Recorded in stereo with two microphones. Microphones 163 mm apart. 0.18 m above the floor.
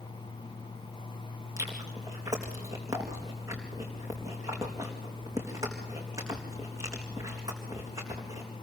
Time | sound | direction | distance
1.6 | chewing | 20° right (ahead or behind) | 4 m